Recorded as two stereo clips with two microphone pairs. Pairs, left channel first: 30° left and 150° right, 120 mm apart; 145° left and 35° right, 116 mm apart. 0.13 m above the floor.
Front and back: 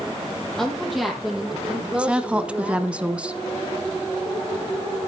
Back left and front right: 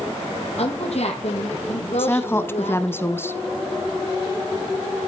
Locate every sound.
0.6 s a woman speaking: 120° left, 5 m; by 3.0 s 135° left, 5 m
2.0 s a woman speaking: 150° left, 1.1 m